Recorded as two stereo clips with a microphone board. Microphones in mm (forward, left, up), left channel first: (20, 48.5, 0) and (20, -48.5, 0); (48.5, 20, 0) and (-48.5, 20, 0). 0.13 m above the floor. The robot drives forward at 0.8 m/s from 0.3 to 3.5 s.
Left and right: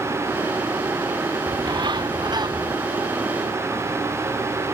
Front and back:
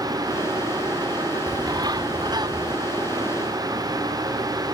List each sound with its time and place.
1.5 s a bird: 130° right; by 2.8 s 135° right